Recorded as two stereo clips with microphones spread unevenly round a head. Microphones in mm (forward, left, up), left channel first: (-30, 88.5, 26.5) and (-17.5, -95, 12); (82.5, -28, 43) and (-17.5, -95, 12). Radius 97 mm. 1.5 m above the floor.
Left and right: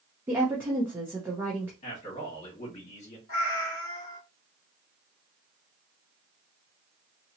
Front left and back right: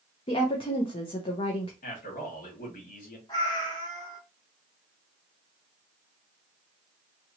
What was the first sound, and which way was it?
A woman speaking, 5° right.